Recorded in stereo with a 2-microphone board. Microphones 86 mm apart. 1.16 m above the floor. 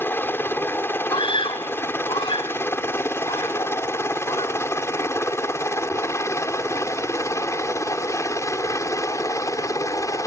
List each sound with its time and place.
0.0 s a helicopter: 25° left (ahead or behind); by 10.3 s 40° left (ahead or behind)
1.1 s a scream: 85° left